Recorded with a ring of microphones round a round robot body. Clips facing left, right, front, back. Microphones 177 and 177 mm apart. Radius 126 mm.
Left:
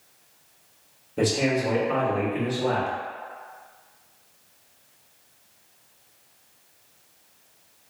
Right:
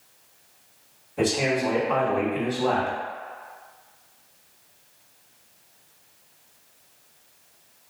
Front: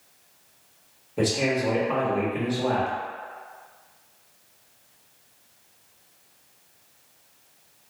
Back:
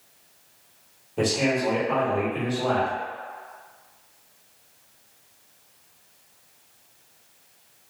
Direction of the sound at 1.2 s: 80° left.